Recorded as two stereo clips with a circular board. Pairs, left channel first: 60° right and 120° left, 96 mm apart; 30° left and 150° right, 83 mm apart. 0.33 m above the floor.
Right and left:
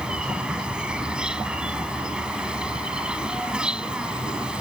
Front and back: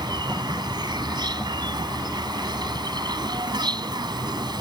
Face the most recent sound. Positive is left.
turn(degrees=-160)